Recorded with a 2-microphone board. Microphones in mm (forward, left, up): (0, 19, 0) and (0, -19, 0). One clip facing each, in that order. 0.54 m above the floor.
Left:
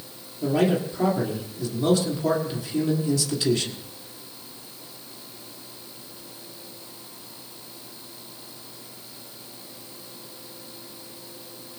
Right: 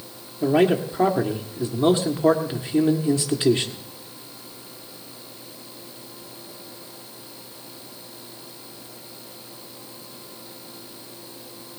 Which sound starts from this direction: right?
A man speaking, at 0.4 s.